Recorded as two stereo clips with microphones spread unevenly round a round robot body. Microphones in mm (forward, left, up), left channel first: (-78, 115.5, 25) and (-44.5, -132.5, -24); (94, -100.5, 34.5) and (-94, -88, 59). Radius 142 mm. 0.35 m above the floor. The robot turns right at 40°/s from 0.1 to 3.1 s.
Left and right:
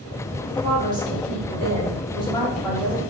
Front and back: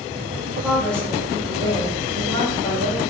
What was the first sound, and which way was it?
A woman speaking, 80° right.